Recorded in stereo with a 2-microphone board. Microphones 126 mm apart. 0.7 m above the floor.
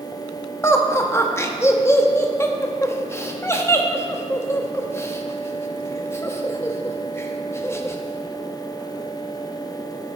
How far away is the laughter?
About 0.8 m.